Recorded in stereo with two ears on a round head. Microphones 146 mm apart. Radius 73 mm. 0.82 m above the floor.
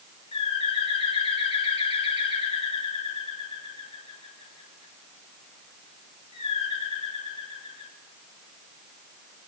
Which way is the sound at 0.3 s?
35° left (ahead or behind).